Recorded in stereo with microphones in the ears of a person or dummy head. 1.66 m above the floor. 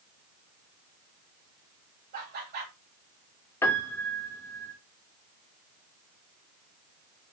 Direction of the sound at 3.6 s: 15° left (ahead or behind).